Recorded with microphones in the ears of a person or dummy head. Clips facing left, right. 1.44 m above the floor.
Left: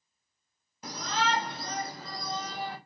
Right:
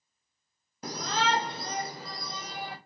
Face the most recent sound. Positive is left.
turn(degrees=-10)  # may be behind; listen again after turning